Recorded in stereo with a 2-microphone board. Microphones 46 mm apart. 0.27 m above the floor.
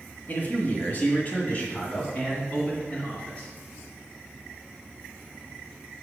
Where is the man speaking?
40° left (ahead or behind), 1.2 m; by 3.5 s 30° left (ahead or behind), 2.5 m.